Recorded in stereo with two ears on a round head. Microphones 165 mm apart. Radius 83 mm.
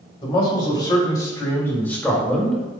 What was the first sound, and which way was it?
A man speaking, 30° left (ahead or behind).